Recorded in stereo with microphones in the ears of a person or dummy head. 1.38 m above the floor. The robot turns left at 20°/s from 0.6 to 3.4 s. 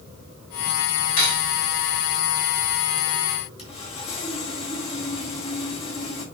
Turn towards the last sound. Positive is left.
turn(degrees=35)  # may be behind; listen again after turning